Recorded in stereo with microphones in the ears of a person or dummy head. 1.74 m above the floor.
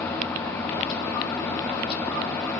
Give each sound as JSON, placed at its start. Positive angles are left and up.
{"t": 0.0, "sound": "an engine running", "side_deg": 10, "distance_m": 1.5}